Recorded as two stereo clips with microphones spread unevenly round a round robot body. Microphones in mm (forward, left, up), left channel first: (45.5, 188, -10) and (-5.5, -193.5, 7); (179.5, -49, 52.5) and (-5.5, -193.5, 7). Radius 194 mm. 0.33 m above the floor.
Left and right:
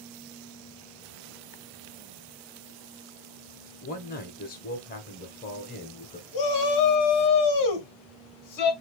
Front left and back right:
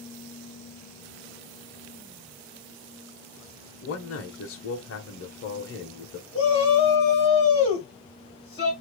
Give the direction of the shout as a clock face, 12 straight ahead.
8 o'clock.